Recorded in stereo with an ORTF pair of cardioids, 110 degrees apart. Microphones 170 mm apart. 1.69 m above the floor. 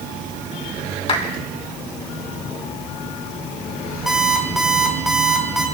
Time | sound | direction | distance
1.1 | a clap | 35° left | 4 m
4.1 | an alarm clock | straight ahead | 3.5 m